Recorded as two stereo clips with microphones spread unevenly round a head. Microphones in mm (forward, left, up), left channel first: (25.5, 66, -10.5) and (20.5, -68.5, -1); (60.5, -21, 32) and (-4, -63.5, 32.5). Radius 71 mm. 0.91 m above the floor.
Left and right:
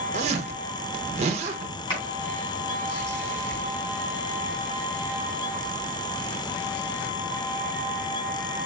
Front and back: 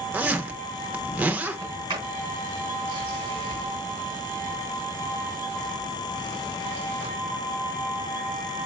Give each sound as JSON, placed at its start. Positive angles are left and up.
{"t": 0.1, "sound": "a zipper", "azimuth_deg": -85, "distance_m": 0.7}
{"t": 1.6, "sound": "a sliding door", "azimuth_deg": 150, "distance_m": 3.0}